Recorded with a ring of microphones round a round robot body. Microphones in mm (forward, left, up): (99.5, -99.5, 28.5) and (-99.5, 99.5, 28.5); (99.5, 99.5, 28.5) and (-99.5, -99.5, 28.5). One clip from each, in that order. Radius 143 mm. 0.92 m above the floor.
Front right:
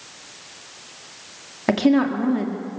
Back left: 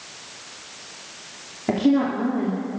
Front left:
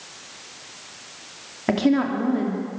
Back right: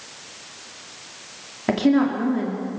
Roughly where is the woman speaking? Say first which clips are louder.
Front right 2 dB, back right 1 dB; ahead right.